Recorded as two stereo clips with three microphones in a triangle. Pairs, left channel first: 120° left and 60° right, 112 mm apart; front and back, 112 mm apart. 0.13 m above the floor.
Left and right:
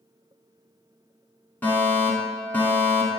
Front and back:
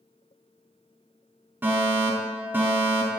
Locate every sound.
1.6 s a fire alarm: 155° left, 2.0 m